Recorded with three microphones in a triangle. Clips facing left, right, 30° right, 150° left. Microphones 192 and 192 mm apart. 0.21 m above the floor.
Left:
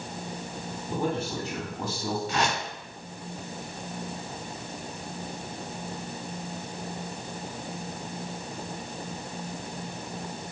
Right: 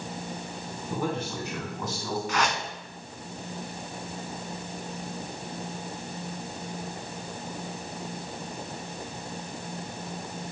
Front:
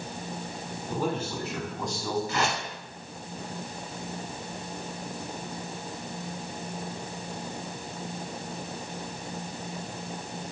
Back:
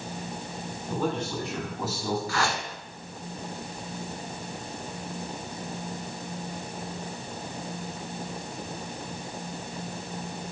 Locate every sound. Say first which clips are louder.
0.9 s a man speaking: left 1 dB, back 1 dB; 45° left, 2.5 m; by 2.2 s 90° left, 1.7 m
2.3 s a whoosh: even, even; 35° left, 0.8 m